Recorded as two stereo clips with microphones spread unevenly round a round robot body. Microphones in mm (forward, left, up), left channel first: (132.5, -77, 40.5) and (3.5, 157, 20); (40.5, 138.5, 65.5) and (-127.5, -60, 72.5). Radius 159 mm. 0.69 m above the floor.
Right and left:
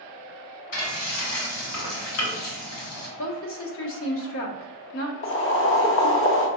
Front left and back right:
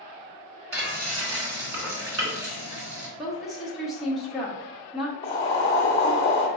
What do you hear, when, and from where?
0.7 s frying: 90° right, 1.6 m
3.2 s a woman speaking: 40° right, 1.1 m
5.2 s boiling: 20° right, 0.9 m